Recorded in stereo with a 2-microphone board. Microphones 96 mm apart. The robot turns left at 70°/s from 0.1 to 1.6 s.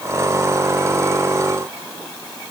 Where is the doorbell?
No doorbell in this recording.